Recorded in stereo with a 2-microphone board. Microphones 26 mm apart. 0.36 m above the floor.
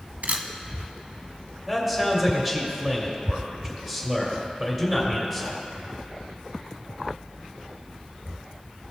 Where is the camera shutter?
75° right (ahead or behind), 0.6 m.